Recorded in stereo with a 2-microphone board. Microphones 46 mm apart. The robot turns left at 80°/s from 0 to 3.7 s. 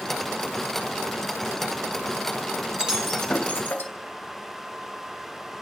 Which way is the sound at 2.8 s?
25° right (ahead or behind).